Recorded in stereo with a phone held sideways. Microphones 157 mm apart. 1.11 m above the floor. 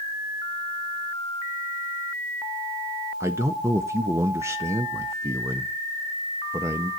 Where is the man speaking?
20° right (ahead or behind), 0.6 m.